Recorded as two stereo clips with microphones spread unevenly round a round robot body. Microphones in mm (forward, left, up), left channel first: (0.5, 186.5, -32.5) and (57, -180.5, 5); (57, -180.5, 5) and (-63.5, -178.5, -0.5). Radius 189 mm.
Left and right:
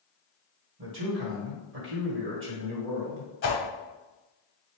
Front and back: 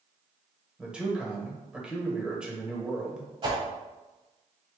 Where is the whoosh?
150° left, 1.0 m.